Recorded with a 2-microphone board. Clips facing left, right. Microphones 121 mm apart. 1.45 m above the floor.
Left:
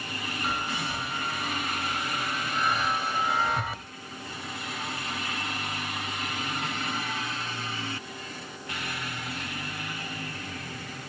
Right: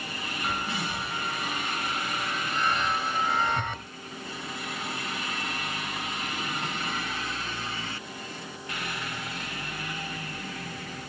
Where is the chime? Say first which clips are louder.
Right 1 dB; 5° left (ahead or behind), 1.4 m.